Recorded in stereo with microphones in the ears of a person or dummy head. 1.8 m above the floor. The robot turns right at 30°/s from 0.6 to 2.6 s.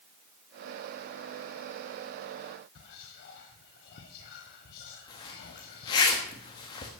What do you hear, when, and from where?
2.8 s whispering: 55° left (ahead or behind), 1.0 m
5.1 s a zipper: 20° left (ahead or behind), 1.4 m